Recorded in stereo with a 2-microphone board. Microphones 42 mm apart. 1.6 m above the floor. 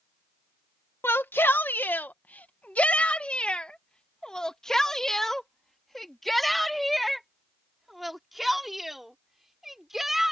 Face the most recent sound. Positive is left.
turn(degrees=-5)  # may be behind; listen again after turning